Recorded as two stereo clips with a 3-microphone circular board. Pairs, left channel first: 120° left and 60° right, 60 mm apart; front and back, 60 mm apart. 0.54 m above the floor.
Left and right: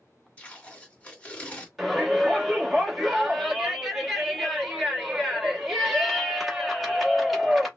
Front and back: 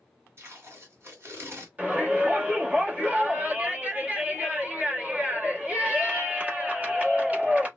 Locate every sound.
0.4 s tape being pulled: straight behind, 1.5 m
1.8 s a shout: 140° right, 1.1 m